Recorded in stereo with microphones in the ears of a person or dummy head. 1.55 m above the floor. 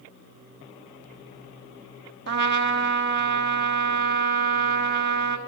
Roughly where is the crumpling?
I don't hear crumpling.